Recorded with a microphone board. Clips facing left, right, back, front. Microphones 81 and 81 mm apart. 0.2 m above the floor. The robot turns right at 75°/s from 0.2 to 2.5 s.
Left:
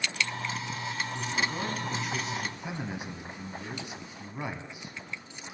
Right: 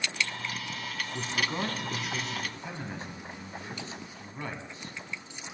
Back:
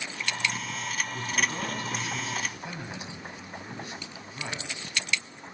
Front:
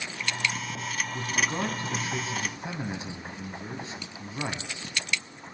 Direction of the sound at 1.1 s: 75° right.